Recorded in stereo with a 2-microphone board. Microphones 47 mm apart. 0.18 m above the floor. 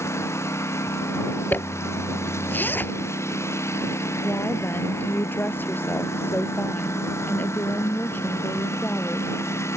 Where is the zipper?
45° left (ahead or behind).